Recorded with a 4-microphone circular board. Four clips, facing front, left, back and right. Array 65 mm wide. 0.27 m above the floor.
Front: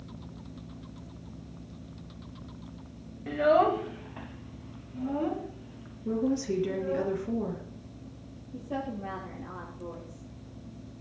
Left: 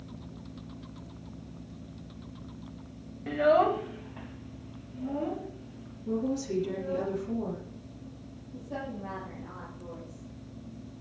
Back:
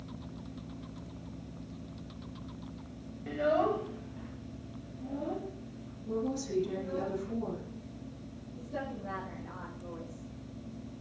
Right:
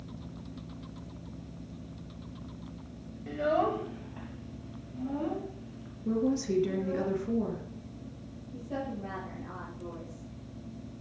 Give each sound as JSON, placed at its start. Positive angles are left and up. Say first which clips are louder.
{"t": 3.3, "sound": "a child speaking", "louder": "left 5 dB, front 6 dB", "azimuth_deg": 70, "distance_m": 0.7}
{"t": 6.0, "sound": "a woman speaking", "louder": "right 2 dB, front 6 dB", "azimuth_deg": -40, "distance_m": 3.5}
{"t": 8.5, "sound": "a woman speaking", "louder": "right 1 dB, front 5 dB", "azimuth_deg": -20, "distance_m": 8.0}